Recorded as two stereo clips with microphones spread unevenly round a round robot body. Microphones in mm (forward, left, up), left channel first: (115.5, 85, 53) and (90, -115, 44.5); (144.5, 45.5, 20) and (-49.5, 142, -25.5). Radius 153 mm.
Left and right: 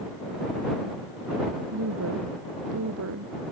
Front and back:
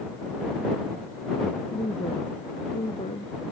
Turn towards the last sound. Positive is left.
turn(degrees=-100)